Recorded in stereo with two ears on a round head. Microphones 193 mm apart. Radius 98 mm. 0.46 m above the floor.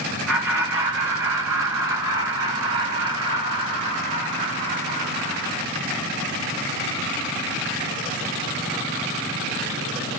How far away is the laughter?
About 2 m.